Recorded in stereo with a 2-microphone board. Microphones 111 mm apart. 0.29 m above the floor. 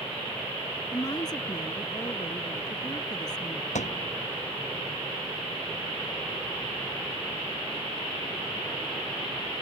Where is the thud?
85° left.